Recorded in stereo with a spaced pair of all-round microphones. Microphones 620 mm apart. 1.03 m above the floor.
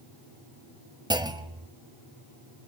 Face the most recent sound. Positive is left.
turn(degrees=-5)  # may be behind; listen again after turning